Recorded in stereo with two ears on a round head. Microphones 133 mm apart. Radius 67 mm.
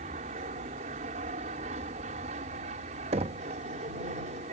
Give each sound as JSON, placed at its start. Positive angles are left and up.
{"t": 0.0, "sound": "an aircraft", "side_deg": -45}
{"t": 3.1, "sound": "knocking", "side_deg": -40}